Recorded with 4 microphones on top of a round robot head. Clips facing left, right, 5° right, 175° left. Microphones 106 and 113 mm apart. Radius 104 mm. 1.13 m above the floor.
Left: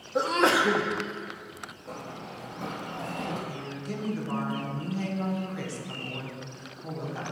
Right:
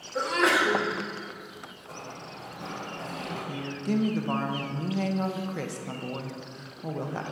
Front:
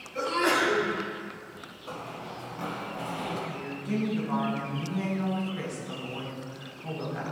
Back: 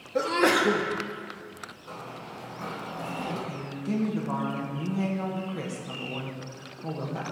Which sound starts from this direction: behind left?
A sneeze, at 0.1 s.